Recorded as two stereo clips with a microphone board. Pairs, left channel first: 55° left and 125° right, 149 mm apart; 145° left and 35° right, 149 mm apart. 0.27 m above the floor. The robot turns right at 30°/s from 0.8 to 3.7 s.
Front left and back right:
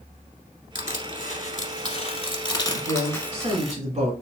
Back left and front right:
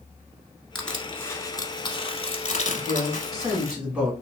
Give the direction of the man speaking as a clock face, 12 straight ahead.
5 o'clock.